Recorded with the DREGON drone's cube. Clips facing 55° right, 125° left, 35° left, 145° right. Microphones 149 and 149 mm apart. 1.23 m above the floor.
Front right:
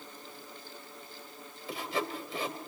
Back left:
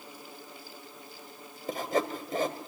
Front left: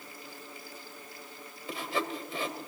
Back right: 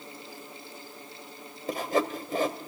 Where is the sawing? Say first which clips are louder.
Back left 5 dB, back right 6 dB; 170° left, 2 m.